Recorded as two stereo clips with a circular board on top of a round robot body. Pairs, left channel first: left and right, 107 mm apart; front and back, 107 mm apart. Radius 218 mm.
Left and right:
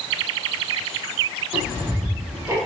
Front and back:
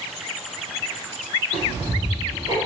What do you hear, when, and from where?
1.5 s ticking: 150° right, 2.0 m